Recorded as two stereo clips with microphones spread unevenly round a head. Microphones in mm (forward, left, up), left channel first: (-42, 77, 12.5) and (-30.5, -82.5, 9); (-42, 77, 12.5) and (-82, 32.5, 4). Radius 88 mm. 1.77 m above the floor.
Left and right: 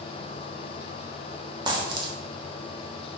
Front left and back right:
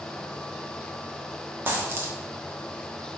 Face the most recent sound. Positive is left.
turn(degrees=-115)